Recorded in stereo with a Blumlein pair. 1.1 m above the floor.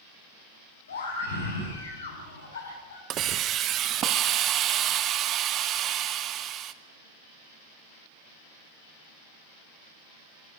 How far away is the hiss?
About 1.2 m.